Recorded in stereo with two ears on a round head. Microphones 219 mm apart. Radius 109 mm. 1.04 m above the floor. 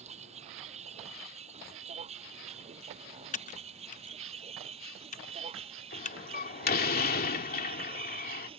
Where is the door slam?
40° left (ahead or behind).